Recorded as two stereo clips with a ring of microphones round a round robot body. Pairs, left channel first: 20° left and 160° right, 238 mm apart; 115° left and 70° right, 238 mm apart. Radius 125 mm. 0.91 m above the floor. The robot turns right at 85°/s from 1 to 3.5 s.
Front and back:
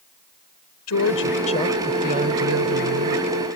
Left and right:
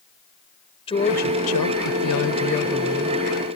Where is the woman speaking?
45° left; by 3.2 s 125° right.